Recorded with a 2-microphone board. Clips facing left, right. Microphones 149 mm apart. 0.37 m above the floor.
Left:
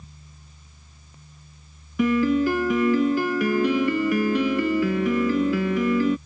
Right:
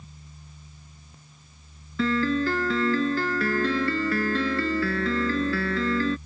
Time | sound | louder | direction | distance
2.0 | a piano | left 4 dB | 15° left (ahead or behind) | ?